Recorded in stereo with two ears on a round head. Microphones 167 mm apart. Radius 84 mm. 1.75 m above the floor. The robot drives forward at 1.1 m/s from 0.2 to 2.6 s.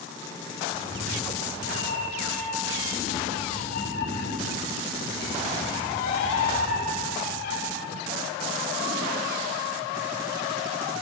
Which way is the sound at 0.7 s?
65° left (ahead or behind).